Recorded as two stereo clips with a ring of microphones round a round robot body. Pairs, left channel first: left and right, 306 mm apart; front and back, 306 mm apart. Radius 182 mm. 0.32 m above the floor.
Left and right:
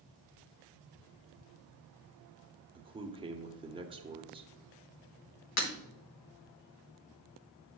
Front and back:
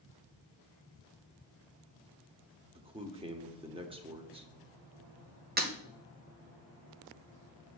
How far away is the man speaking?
About 0.9 m.